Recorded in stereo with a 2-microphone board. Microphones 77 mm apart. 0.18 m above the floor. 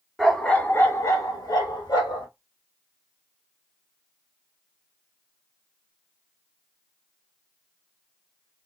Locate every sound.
0.2 s a dog barking: 5° left (ahead or behind), 1.0 m; by 2.3 s 80° left, 1.9 m